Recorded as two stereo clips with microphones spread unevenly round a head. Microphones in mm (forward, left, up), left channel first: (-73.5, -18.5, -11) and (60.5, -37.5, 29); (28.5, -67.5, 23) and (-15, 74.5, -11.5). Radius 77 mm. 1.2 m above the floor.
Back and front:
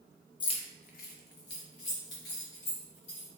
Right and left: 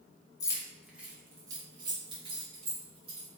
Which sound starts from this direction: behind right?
Keys jangling, at 0.4 s.